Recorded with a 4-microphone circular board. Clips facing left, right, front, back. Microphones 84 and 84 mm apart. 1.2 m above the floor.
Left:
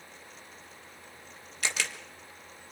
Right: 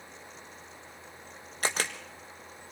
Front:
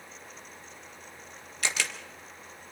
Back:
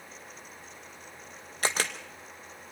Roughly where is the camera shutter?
Behind right.